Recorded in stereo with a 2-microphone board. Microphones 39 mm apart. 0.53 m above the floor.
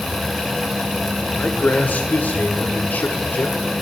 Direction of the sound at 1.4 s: 50° left (ahead or behind).